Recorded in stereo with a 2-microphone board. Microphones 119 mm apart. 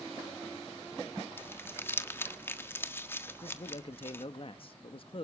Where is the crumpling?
20° left (ahead or behind), 1.5 m.